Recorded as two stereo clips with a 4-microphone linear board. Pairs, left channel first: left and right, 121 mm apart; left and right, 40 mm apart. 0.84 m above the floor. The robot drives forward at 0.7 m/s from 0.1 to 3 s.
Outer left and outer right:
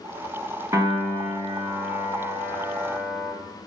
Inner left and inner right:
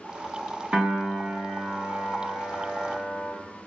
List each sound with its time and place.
0.7 s a piano: 30° right (ahead or behind), 1.2 m; by 3.3 s 15° right (ahead or behind), 2.5 m